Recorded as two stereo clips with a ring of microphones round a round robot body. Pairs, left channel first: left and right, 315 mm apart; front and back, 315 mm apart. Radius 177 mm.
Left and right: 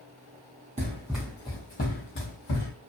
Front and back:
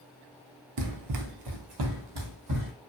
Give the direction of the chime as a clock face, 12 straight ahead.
No chime in this recording.